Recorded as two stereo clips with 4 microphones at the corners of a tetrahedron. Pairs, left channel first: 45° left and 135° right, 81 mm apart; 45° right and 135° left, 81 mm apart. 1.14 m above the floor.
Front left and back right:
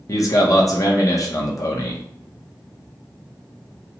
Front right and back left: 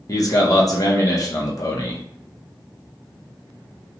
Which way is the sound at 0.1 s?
Straight ahead.